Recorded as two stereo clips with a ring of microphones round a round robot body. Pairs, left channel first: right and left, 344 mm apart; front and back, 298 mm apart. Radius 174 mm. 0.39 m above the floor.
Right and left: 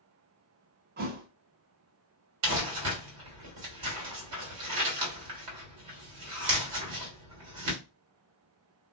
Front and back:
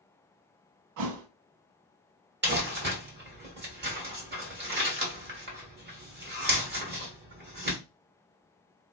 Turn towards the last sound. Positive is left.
turn(degrees=130)